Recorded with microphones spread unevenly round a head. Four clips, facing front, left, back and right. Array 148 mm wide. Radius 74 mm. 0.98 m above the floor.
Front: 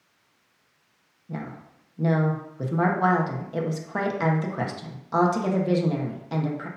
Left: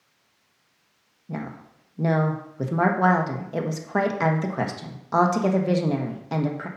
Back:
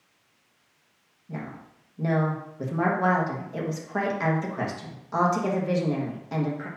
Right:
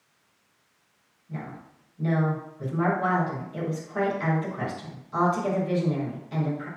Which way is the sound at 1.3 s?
80° left.